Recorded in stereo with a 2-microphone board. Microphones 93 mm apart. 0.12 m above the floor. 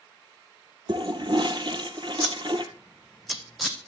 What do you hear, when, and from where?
0.9 s a toilet flushing: 55° right (ahead or behind), 1.9 m
2.2 s scissors: centre (ahead or behind), 1.7 m